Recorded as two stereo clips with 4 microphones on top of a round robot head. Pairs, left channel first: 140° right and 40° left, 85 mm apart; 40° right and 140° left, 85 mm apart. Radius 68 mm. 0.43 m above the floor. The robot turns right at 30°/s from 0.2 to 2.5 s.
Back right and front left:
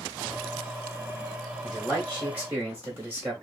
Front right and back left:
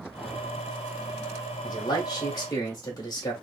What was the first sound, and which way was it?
A man speaking, 40° right.